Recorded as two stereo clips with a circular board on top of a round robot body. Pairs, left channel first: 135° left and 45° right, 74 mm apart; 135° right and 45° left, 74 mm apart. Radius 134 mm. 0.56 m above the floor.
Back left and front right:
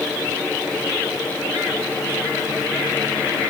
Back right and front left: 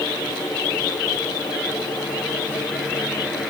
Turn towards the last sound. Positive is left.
No sound to turn to.